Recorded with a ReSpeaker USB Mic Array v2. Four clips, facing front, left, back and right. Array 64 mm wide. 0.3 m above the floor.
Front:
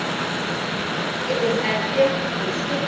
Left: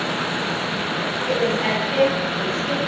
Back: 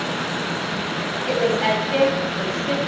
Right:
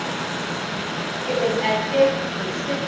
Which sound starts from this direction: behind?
A woman speaking, at 1.3 s.